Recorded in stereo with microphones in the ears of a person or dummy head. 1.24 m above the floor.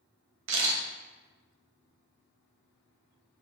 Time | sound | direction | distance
0.5 | a camera shutter | 70° right (ahead or behind) | 1.3 m